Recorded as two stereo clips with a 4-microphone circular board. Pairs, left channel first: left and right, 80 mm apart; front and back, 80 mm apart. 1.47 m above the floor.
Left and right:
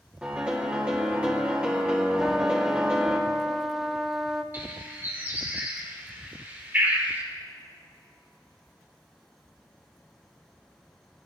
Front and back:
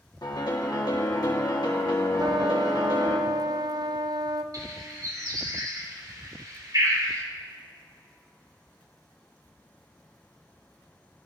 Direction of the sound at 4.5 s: 150° right.